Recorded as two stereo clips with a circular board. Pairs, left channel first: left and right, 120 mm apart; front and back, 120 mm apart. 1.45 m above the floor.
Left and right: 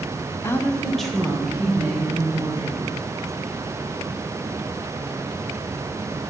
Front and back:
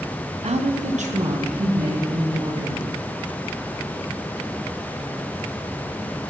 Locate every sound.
0.4 s a woman speaking: 155° left, 0.8 m; by 2.9 s 170° right, 3.5 m